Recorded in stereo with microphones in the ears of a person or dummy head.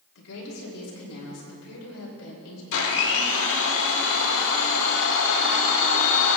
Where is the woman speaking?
75° left (ahead or behind), 3 m.